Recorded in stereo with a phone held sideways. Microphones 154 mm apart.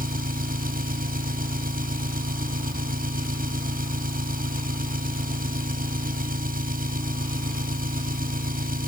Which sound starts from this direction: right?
An engine running, at 0.0 s.